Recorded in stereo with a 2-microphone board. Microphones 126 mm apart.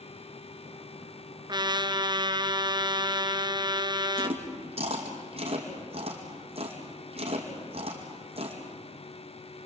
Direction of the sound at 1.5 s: 35° right (ahead or behind).